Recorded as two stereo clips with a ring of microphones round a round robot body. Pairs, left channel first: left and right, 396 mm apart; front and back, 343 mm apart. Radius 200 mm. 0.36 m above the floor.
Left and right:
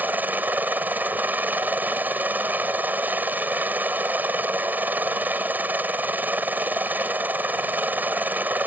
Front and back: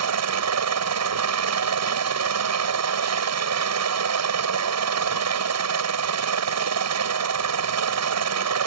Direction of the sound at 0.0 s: 175° right.